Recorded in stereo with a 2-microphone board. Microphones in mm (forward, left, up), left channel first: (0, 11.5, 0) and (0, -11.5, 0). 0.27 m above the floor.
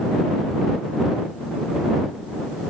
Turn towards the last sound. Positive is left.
No sound to turn to.